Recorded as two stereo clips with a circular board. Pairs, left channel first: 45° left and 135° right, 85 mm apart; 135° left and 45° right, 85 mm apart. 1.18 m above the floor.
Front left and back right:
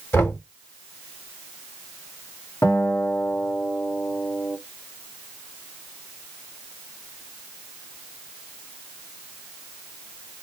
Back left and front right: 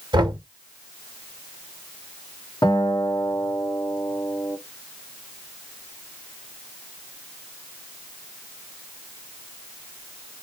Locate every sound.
0.1 s knocking: 20° right, 1.0 m
2.6 s a guitar: 100° left, 1.4 m